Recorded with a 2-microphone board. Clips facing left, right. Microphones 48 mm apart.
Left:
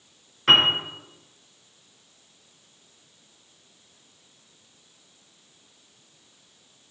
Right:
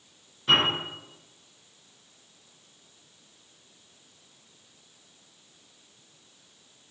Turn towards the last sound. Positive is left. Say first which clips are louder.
# left 5 dB
turn(degrees=75)  # may be behind; listen again after turning